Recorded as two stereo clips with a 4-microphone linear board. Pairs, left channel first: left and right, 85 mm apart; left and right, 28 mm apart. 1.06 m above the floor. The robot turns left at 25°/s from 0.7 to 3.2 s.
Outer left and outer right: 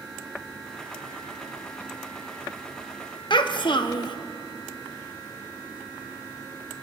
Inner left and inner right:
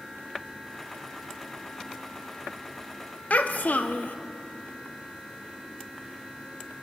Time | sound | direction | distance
3.3 | a child speaking | 70° left (ahead or behind) | 0.7 m